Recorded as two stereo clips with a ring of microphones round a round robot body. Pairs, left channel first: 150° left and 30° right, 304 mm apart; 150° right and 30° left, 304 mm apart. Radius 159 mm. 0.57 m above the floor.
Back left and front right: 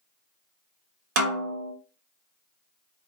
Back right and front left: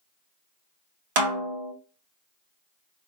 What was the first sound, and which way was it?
A snare drum, 15° left.